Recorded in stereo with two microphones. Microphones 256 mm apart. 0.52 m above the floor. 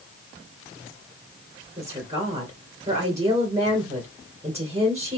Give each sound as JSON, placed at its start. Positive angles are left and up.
{"t": 1.8, "sound": "a woman speaking", "side_deg": -25, "distance_m": 1.8}